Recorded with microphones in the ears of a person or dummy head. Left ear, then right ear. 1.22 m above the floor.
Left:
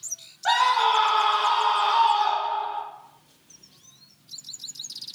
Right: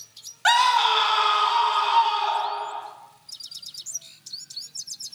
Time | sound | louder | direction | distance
0.5 | a scream | right 2 dB | 55° right (ahead or behind) | 0.8 m